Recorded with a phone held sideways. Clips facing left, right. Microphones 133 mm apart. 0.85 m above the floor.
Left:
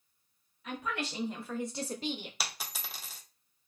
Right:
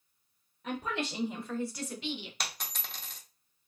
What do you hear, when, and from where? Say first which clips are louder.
0.6 s a woman speaking: right 2 dB; 35° right (ahead or behind), 0.7 m; by 2.3 s 50° left (ahead or behind), 0.7 m
2.4 s a dropped coin: even; 5° left (ahead or behind), 0.5 m